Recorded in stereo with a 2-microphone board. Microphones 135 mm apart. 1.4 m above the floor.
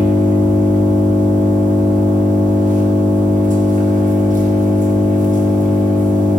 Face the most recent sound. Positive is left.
turn(degrees=-75)  # may be behind; listen again after turning